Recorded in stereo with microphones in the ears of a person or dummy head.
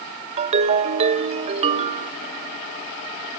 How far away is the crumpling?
I don't hear crumpling.